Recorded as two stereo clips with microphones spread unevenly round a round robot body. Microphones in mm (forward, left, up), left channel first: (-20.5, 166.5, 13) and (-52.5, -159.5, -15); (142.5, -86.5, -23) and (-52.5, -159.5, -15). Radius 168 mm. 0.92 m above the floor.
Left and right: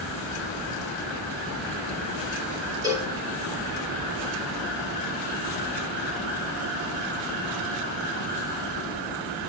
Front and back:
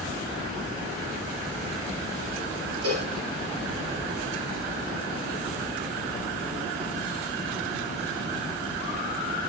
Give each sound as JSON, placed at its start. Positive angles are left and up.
{"t": 2.8, "sound": "a cowbell", "azimuth_deg": -175, "distance_m": 3.0}